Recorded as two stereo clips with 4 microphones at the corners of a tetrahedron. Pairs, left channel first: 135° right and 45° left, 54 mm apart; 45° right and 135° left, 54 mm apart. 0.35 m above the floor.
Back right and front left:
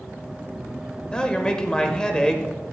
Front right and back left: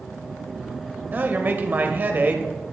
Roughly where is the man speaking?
Behind.